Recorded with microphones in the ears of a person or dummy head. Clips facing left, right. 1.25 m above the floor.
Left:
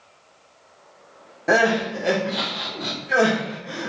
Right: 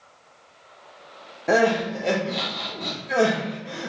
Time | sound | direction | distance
1.5 | crying | centre (ahead or behind) | 0.5 m